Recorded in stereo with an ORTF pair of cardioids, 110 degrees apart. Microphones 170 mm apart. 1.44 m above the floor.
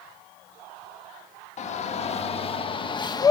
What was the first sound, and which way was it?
A shout, 45° left.